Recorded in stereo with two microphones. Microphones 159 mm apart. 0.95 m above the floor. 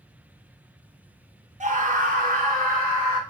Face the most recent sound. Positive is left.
turn(degrees=-75)  # may be behind; listen again after turning